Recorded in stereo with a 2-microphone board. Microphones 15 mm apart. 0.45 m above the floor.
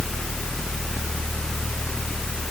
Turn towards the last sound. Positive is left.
No sound to turn to.